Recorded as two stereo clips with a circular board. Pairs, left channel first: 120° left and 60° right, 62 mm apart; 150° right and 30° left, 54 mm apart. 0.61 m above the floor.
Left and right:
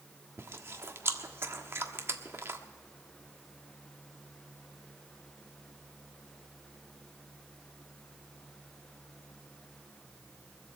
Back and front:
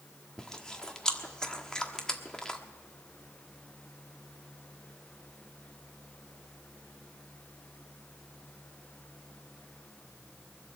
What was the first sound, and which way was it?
Chewing, 80° right.